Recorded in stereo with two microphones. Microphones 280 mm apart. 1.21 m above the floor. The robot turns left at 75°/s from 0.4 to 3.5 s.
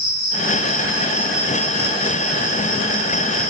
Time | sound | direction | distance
0.0 | an insect | 85° left | 9.5 m